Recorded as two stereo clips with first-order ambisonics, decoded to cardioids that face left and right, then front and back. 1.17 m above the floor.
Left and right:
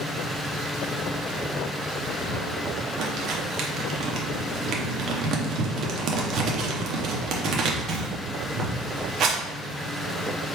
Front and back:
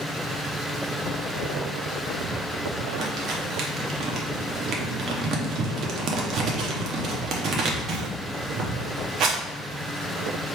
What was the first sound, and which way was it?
Crumpling, 135° right.